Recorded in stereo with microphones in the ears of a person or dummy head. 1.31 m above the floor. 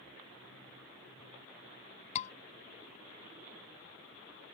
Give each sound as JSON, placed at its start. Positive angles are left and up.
{"t": 2.1, "sound": "a scream", "side_deg": 40}